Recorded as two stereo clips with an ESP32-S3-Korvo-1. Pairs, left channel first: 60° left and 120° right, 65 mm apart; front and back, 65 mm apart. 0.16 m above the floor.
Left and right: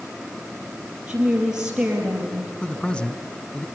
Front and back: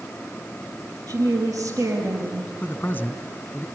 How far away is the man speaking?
About 1.5 m.